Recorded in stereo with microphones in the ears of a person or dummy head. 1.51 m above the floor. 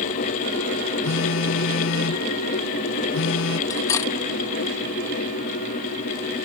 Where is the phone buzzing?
80° left.